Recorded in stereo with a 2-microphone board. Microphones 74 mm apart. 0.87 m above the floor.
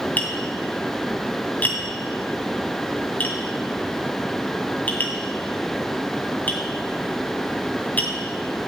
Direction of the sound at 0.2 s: 20° left (ahead or behind).